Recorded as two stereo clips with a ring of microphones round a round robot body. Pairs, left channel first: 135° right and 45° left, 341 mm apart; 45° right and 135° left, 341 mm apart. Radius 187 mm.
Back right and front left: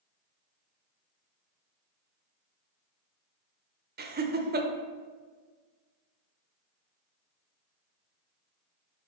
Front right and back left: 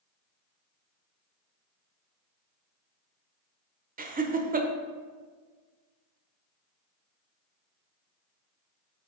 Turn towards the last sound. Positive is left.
turn(degrees=85)